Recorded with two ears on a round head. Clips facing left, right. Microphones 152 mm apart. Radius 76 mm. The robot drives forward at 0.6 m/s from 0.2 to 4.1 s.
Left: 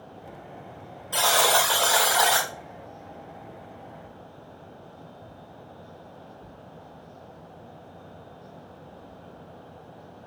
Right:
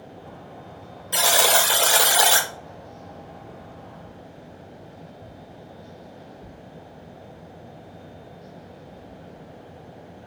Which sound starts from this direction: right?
A buzzer, at 1.1 s.